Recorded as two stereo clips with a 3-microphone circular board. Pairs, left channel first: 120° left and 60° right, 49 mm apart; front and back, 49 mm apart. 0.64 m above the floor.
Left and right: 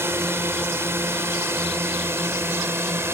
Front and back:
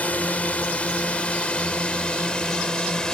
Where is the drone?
50° right; by 3.1 s 70° right.